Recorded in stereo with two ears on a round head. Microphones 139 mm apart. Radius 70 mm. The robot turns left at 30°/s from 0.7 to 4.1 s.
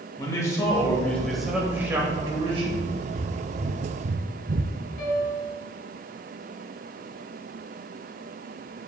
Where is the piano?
70° left (ahead or behind), 3.5 m.